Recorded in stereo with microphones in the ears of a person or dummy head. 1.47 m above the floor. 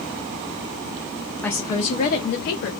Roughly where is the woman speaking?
Centre.